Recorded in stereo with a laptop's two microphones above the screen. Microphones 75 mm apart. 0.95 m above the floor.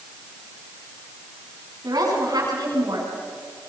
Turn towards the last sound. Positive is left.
turn(degrees=-60)  # may be behind; listen again after turning